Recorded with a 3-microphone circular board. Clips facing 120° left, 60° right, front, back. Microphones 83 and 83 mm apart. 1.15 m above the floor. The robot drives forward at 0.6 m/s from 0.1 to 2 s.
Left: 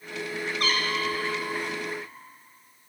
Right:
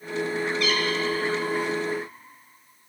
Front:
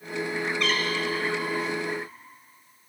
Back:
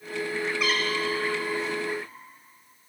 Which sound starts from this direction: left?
A cat meowing, at 0.6 s.